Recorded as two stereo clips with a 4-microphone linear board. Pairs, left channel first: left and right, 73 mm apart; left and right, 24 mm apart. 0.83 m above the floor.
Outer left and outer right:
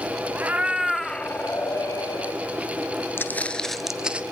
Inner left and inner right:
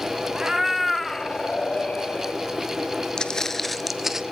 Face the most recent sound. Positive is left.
turn(degrees=-20)  # may be behind; listen again after turning